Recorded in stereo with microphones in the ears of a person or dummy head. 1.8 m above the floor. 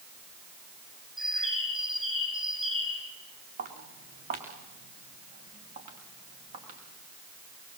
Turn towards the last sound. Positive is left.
turn(degrees=-45)  # may be behind; listen again after turning